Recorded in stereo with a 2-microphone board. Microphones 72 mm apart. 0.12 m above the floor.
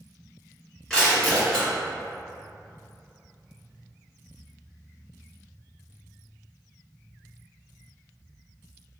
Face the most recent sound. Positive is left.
turn(degrees=5)  # may be behind; listen again after turning